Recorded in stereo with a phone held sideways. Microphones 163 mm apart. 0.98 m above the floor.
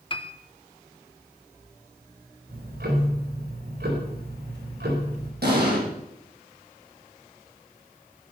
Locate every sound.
0.1 s a piano: 35° left (ahead or behind), 1.1 m
2.5 s ticking: 85° right, 4 m
5.4 s an explosion: 80° right, 6 m